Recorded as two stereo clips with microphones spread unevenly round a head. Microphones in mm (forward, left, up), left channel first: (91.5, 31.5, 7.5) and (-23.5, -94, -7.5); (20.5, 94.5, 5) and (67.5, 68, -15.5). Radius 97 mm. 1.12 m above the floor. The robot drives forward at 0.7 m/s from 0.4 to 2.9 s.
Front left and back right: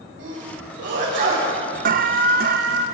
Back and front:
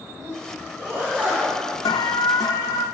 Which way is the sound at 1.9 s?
170° right.